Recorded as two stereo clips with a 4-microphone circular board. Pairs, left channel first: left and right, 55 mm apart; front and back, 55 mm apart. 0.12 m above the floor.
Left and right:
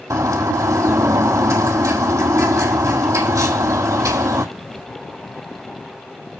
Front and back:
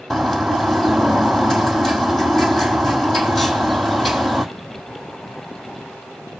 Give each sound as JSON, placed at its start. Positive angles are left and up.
{"t": 0.1, "sound": "a bird", "azimuth_deg": -85, "distance_m": 1.7}